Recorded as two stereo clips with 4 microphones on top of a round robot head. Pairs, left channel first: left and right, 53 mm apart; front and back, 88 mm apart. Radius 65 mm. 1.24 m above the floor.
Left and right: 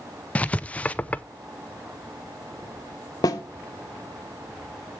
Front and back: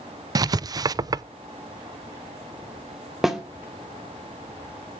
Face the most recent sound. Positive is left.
turn(degrees=95)